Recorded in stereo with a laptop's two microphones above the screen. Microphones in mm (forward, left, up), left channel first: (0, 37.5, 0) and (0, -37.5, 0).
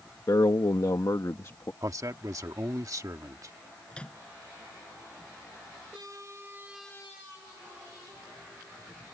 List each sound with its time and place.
0.3 s a man speaking: 65° left (ahead or behind); by 1.7 s 40° left (ahead or behind)
1.8 s a man speaking: 50° right (ahead or behind)
3.9 s a microwave: 15° left (ahead or behind)